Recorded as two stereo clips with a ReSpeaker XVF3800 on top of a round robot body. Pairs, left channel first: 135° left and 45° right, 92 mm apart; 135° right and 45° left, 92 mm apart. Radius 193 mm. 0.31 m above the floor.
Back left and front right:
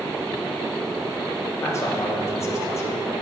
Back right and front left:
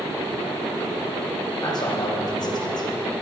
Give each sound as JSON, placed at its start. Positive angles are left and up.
{"t": 1.6, "sound": "a man speaking", "azimuth_deg": -170, "distance_m": 1.9}